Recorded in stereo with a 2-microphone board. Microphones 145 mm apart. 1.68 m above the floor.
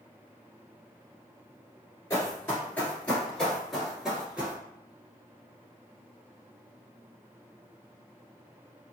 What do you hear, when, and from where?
2.1 s running footsteps: 20° left (ahead or behind), 1.8 m; by 4.6 s 10° right (ahead or behind), 1.7 m